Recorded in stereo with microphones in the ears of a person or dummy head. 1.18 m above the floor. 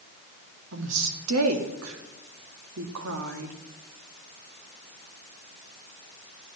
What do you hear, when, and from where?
0.7 s a woman speaking: 75° right (ahead or behind), 1.8 m